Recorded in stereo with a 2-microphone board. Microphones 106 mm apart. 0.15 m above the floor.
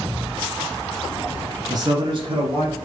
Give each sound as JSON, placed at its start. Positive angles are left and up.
{"t": 1.7, "sound": "a man speaking", "side_deg": -40, "distance_m": 1.3}